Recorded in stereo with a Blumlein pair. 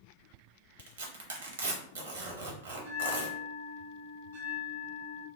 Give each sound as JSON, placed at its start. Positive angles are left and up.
{"t": 0.8, "sound": "tearing paper", "azimuth_deg": -60, "distance_m": 0.7}
{"t": 2.8, "sound": "a bell", "azimuth_deg": -65, "distance_m": 1.0}